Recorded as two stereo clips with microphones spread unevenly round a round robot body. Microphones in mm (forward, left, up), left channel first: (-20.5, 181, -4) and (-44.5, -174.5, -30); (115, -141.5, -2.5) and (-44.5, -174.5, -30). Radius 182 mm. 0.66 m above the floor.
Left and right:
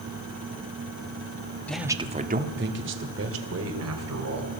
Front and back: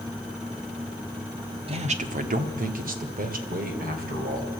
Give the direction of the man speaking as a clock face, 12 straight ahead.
6 o'clock.